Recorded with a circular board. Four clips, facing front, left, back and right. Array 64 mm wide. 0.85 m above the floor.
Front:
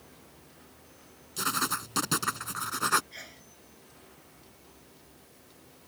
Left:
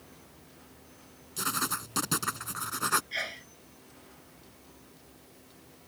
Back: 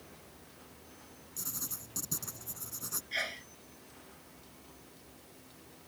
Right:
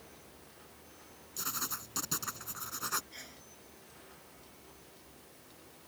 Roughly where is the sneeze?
Behind left.